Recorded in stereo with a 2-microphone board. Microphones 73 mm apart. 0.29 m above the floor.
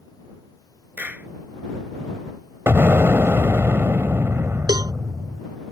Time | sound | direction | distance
1.0 | a clap | 20° right (ahead or behind) | ?
2.7 | an explosion | 35° right (ahead or behind) | ?
4.7 | a cowbell | 75° right (ahead or behind) | ?